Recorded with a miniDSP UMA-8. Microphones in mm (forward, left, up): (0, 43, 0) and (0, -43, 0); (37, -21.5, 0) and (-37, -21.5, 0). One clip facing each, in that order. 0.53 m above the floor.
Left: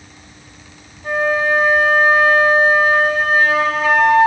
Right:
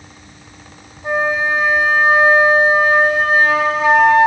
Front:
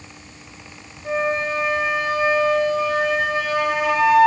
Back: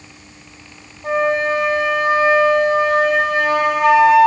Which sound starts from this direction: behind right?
A flute, at 1.0 s.